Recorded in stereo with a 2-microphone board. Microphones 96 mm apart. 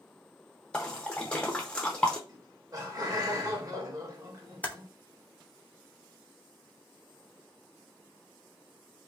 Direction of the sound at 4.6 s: 15° left (ahead or behind).